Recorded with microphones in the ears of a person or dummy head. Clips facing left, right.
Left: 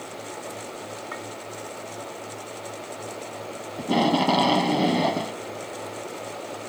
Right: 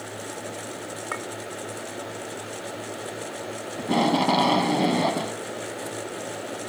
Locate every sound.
1.1 s a clink: 60° right (ahead or behind)
3.8 s tape being pulled: 5° left (ahead or behind)